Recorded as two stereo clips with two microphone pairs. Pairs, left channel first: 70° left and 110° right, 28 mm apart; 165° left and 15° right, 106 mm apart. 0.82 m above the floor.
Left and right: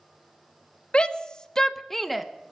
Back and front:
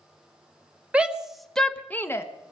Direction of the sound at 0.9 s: 60° left.